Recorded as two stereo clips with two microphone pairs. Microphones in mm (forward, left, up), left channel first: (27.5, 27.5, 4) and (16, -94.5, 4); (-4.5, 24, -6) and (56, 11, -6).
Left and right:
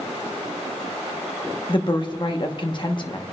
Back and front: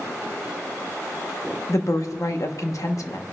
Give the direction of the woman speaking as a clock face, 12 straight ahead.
8 o'clock.